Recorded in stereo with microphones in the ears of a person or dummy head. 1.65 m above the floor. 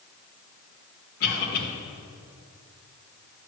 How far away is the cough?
About 2 m.